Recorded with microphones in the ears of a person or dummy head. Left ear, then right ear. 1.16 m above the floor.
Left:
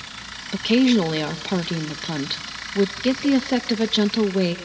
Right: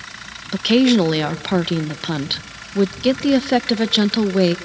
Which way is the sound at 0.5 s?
15° right (ahead or behind).